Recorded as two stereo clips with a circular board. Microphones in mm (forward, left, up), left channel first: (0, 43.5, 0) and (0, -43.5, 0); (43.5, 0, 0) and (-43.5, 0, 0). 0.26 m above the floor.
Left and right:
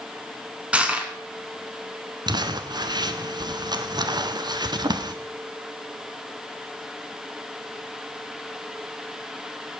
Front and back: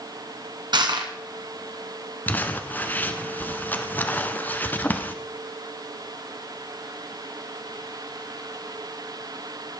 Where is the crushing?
165° right, 1.9 m.